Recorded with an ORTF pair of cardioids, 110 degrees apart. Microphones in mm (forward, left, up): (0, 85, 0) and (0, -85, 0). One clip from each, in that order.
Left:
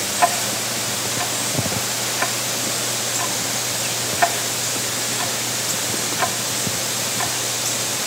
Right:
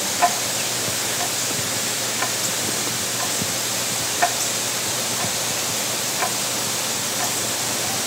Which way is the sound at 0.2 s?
15° left.